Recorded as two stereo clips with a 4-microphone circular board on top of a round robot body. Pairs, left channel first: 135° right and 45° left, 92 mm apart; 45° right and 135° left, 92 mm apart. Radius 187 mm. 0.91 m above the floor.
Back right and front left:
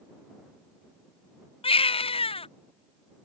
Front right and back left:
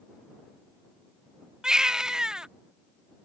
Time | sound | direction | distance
1.6 | a baby crying | 145° right | ?